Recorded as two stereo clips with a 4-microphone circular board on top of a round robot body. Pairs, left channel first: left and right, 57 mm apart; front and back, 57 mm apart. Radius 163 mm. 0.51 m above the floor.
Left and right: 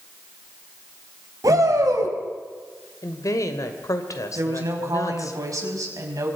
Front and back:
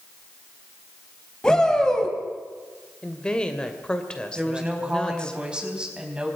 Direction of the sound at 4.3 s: 110° right.